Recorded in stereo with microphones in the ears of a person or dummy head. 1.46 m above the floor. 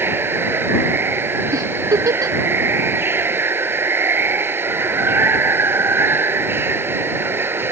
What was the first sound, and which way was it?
Running water, 15° right (ahead or behind).